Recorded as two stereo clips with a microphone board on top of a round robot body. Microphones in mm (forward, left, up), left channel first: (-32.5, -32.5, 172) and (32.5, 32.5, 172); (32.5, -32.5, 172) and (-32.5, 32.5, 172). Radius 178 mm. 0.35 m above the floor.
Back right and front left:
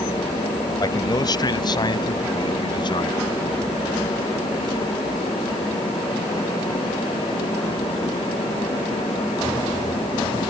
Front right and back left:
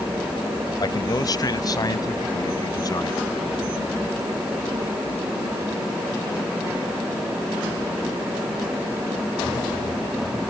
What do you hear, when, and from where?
0.8 s a man speaking: 90° right; by 3.2 s 95° right